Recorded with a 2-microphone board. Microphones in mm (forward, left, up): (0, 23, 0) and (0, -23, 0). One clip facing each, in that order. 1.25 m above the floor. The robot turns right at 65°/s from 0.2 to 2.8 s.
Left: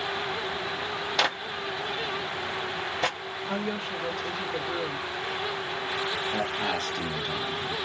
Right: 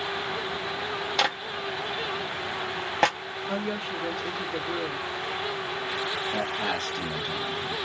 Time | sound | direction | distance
1.2 | a clap | centre (ahead or behind) | 0.8 m
3.5 | a woman speaking | 5° right (ahead or behind) | 0.9 m
6.3 | a man speaking | centre (ahead or behind) | 1.5 m